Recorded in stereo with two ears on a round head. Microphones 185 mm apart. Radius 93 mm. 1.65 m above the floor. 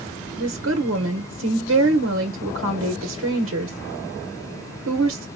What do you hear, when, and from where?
0.4 s a woman speaking: 65° right (ahead or behind), 1.2 m